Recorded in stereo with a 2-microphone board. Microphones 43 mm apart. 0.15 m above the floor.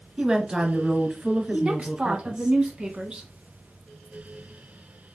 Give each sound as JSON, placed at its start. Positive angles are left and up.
{"t": 0.2, "sound": "a woman speaking", "side_deg": -20, "distance_m": 1.5}
{"t": 1.5, "sound": "a woman speaking", "side_deg": -25, "distance_m": 1.1}